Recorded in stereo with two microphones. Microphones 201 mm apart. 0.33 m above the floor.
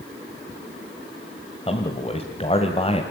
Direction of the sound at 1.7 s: 30° left (ahead or behind).